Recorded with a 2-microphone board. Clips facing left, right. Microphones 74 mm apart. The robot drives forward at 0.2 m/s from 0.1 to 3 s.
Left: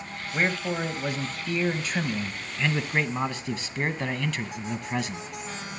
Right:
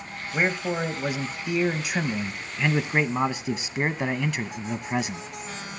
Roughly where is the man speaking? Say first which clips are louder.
Right 2 dB; centre.